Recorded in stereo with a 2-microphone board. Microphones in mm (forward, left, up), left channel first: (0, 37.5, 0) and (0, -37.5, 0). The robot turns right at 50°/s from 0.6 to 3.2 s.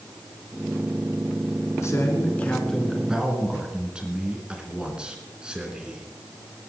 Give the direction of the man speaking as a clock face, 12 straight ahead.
8 o'clock.